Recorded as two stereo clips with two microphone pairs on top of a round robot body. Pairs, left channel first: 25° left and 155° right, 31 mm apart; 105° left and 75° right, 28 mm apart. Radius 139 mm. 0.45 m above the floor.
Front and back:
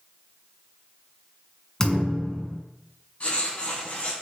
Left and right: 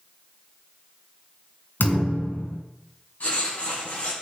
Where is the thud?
100° left, 3 m.